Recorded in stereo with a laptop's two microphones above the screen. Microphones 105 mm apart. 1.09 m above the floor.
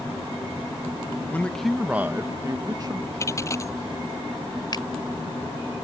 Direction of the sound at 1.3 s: 15° left (ahead or behind).